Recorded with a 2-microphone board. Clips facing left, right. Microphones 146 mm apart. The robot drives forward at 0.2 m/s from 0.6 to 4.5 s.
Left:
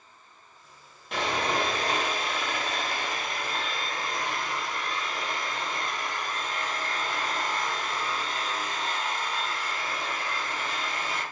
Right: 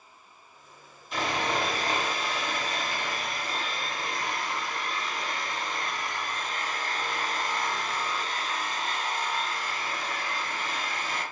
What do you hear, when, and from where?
1.1 s sawing: 70° left (ahead or behind), 1.4 m; by 11.2 s 50° left (ahead or behind), 1.7 m